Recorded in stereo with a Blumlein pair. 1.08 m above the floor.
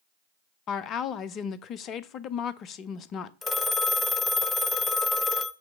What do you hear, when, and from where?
0.7 s a woman speaking: 30° left, 0.7 m
3.4 s a phone ringing: 15° left, 0.7 m